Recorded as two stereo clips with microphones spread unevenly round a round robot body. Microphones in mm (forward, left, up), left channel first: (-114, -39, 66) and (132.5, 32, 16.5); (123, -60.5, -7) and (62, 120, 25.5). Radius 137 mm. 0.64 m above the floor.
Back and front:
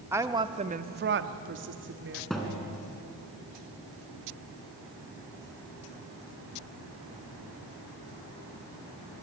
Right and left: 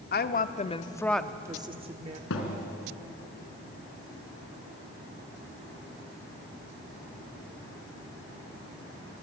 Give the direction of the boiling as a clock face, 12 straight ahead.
I don't hear boiling.